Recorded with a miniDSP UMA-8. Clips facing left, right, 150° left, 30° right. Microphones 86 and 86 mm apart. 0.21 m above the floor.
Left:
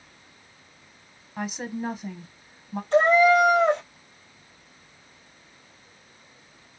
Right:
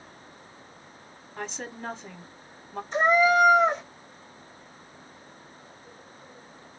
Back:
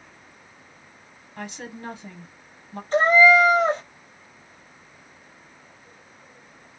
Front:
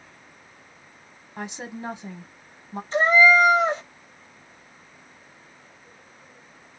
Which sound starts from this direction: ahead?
A woman speaking, at 1.4 s.